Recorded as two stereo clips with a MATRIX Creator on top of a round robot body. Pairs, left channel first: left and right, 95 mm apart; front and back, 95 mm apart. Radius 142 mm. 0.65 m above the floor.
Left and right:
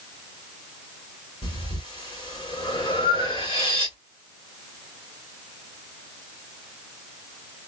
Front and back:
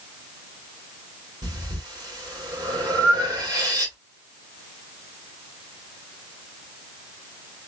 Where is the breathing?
130° left, 2 m.